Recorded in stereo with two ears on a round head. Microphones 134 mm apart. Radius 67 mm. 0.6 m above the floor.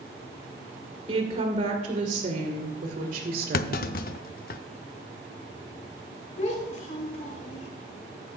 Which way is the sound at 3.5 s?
65° left (ahead or behind).